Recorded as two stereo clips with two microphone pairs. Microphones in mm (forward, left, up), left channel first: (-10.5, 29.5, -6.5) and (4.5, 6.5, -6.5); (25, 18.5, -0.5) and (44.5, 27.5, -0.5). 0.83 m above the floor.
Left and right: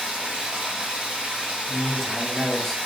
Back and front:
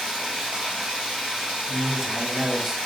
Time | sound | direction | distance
0.0 | running water | 20° right | 1.9 m
1.7 | a man speaking | 70° left | 0.6 m